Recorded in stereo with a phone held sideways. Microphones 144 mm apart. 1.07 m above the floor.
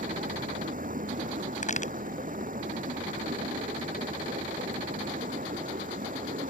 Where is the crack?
65° left (ahead or behind).